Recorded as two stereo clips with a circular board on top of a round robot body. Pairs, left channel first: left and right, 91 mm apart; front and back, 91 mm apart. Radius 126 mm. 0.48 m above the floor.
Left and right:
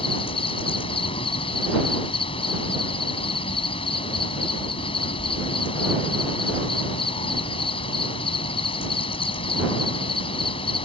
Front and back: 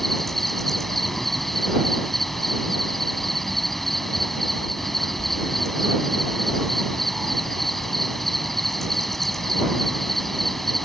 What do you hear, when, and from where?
0.0 s an insect: 85° left